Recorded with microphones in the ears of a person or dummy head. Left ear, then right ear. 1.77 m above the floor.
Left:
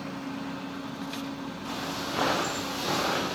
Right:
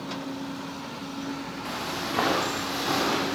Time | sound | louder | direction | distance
1.6 | footsteps | right 2 dB | 20° right (ahead or behind) | 7.5 m